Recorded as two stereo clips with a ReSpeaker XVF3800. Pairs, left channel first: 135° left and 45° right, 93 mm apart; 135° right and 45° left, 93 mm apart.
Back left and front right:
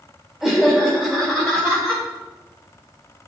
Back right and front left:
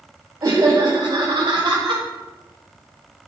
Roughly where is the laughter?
Ahead left.